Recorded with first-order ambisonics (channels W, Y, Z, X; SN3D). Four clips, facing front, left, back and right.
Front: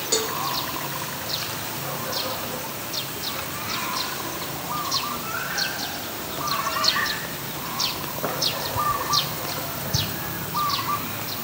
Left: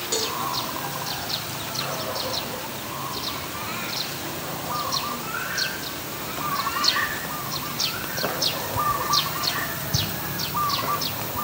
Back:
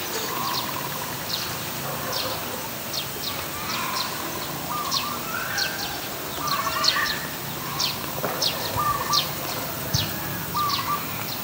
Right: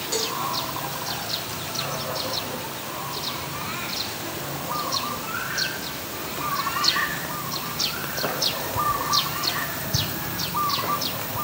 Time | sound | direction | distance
0.1 | a cowbell | 10° left | 1.9 m